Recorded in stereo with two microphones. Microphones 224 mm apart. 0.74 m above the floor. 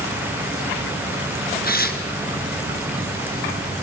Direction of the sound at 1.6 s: 45° left (ahead or behind).